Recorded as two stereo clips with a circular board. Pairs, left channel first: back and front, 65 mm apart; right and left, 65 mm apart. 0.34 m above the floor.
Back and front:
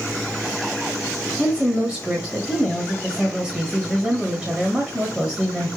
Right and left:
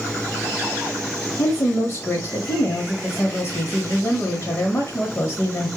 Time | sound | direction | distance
1.4 | a woman speaking | 65° right | 1.2 m